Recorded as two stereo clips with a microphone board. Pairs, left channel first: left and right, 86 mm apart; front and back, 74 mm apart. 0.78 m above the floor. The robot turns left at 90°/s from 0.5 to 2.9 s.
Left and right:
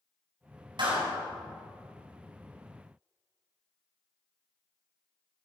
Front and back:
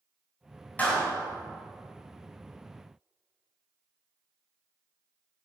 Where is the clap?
70° right, 4.5 m; by 1.1 s 95° right, 4.5 m.